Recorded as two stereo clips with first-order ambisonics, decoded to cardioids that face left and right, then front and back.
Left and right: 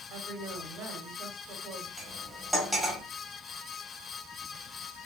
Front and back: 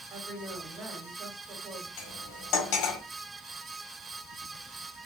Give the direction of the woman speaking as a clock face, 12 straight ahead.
4 o'clock.